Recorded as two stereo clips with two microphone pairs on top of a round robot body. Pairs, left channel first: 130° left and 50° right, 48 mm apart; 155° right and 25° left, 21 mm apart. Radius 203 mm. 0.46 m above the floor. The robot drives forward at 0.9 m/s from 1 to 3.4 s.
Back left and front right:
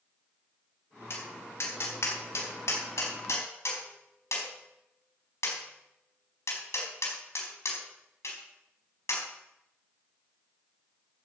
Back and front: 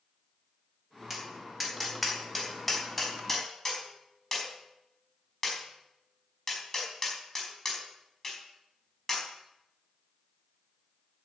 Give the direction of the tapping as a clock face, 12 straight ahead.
8 o'clock.